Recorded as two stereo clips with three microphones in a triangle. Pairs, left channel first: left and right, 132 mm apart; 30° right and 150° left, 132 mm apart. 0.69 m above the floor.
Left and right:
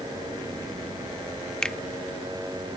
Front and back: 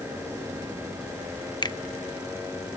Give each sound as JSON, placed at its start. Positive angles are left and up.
{"t": 1.6, "sound": "a finger snap", "azimuth_deg": 10}